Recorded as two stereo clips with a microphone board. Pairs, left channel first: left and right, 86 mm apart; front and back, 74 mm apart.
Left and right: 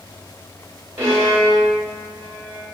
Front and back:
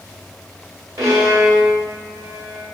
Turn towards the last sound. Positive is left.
turn(degrees=-145)